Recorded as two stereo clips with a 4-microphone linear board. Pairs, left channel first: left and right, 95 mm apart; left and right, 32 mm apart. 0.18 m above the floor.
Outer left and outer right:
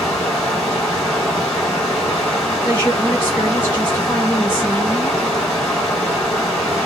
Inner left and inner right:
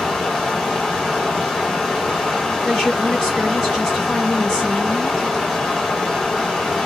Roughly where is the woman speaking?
Left.